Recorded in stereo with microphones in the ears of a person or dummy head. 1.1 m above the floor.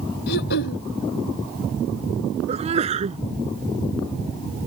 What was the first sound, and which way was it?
Throat clearing, 60° left (ahead or behind).